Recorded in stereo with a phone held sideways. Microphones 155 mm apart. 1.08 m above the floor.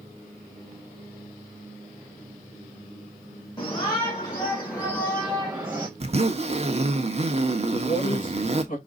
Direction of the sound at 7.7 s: 60° left (ahead or behind).